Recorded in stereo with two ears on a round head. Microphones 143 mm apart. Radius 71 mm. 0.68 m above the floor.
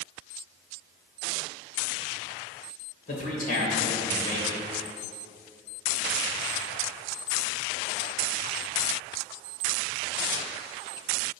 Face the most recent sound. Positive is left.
turn(degrees=55)  # may be behind; listen again after turning